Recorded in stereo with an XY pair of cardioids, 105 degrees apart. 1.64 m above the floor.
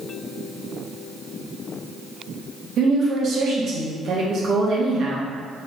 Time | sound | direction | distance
2.8 | a woman speaking | 60° right | 1.4 m